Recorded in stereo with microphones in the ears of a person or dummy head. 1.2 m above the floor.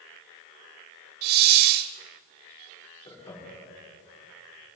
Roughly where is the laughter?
Left.